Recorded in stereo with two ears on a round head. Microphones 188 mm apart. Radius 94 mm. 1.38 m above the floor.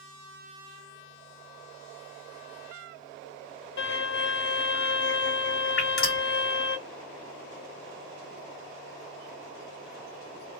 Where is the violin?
55° left (ahead or behind), 1.1 m.